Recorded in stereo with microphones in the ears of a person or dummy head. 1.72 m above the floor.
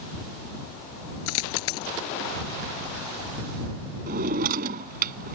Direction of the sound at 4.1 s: 45° right (ahead or behind).